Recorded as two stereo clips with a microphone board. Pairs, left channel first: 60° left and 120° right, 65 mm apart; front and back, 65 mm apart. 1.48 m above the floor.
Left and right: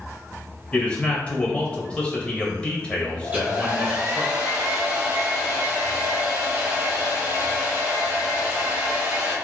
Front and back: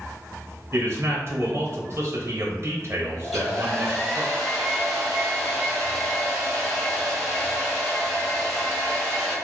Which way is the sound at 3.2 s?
85° right.